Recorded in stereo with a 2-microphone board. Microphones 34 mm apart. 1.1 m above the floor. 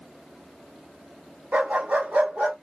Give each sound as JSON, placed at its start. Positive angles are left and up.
{"t": 1.5, "sound": "a dog barking", "side_deg": -50, "distance_m": 0.9}